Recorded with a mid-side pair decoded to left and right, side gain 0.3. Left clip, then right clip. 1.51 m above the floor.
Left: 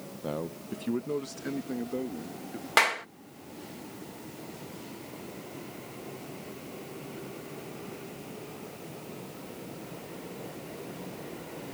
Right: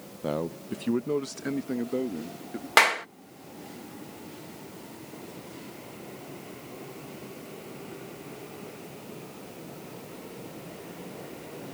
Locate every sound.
0.2 s a man speaking: 45° right
2.8 s a clap: 40° right